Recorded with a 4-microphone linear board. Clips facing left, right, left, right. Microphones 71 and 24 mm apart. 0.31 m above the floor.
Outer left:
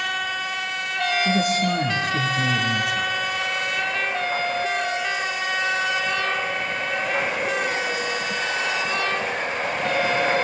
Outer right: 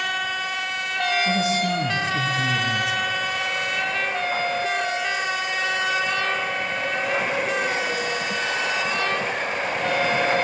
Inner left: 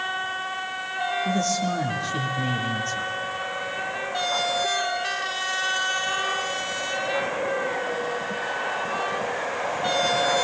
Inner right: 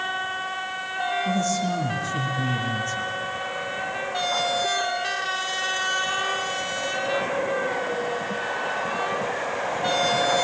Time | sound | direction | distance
1.2 | a man speaking | 55° left (ahead or behind) | 4.5 m